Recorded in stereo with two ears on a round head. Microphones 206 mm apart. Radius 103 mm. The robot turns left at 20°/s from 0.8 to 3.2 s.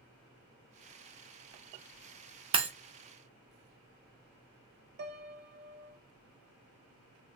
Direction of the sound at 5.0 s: 45° right (ahead or behind).